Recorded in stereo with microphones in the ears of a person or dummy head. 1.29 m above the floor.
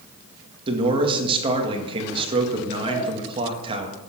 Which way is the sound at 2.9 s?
5° left (ahead or behind).